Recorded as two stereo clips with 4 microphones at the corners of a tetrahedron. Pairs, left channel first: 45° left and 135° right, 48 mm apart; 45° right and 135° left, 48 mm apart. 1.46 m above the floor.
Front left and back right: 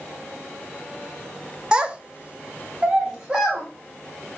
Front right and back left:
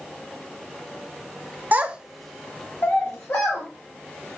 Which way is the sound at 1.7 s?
165° left.